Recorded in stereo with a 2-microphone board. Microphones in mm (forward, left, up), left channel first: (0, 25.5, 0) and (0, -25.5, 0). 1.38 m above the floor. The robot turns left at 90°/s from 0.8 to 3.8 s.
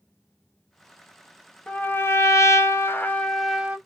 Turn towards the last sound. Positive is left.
turn(degrees=-30)